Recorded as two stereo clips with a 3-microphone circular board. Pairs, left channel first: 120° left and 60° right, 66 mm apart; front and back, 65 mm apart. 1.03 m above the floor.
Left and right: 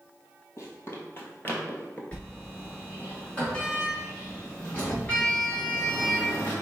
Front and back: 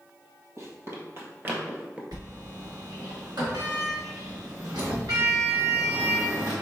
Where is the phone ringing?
No phone ringing in this recording.